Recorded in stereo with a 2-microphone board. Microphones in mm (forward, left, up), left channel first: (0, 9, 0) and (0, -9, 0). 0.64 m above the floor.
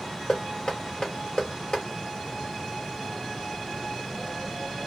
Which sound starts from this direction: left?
Knocking, at 0.3 s.